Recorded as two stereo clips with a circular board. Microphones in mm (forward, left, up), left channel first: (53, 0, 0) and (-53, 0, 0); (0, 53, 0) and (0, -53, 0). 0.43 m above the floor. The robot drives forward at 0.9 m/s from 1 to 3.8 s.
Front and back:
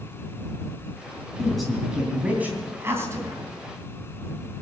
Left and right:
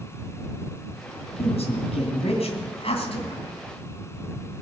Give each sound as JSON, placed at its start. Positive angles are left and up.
{"t": 1.4, "sound": "a woman speaking", "azimuth_deg": 85, "distance_m": 3.0}